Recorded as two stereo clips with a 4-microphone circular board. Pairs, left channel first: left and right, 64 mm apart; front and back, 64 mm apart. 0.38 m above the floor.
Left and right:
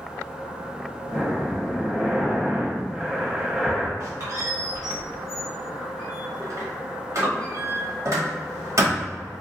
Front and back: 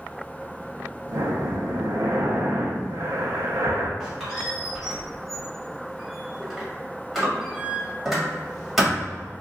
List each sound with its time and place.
1.1 s breathing: 165° right, 0.7 m
4.0 s a squeak: 95° right, 1.4 m